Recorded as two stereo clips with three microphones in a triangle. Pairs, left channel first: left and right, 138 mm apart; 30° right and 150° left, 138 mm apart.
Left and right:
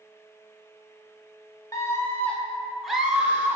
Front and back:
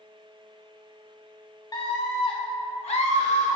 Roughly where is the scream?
Ahead left.